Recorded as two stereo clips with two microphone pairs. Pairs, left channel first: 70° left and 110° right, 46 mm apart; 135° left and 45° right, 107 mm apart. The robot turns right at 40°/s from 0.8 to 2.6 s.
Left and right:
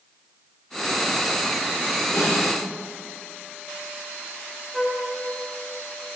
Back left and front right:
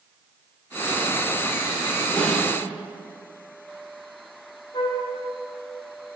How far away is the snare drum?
About 2 m.